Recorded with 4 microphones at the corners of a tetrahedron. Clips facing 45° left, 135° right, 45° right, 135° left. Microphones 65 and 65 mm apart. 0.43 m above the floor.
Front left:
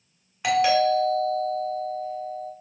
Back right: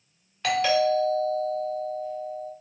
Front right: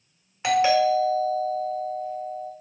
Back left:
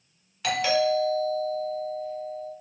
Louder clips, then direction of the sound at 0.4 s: Front left 2 dB, front right 4 dB; 20° right.